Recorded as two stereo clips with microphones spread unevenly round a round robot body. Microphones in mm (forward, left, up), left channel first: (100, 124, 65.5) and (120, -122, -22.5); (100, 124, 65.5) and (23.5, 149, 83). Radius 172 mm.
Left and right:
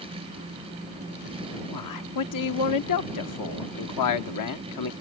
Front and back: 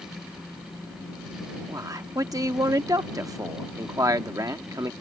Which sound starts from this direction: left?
A man speaking, at 1.7 s.